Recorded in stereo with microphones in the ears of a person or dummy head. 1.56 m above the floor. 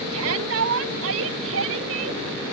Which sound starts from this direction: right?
A shout, at 0.1 s.